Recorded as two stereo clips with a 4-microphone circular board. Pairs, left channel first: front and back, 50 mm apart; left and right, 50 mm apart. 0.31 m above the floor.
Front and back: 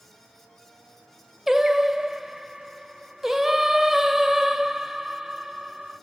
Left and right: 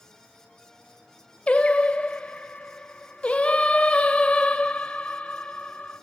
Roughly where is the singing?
Left.